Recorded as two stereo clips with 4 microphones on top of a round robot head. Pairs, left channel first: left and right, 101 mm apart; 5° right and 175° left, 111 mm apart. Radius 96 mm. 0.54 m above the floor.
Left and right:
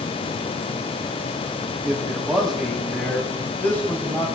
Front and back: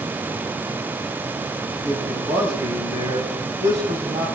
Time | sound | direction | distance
1.8 | a man speaking | 170° right | 4 m